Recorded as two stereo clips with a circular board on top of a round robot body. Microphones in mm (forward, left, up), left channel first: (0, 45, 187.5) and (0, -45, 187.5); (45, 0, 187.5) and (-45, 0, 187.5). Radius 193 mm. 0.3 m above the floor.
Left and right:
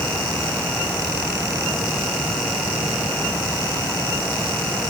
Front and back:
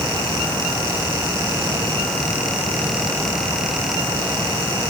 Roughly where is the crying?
No crying in this recording.